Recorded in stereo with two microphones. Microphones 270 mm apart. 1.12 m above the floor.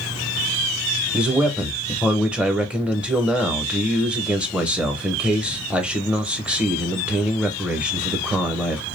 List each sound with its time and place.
1.1 s a man speaking: 5° right (ahead or behind), 0.7 m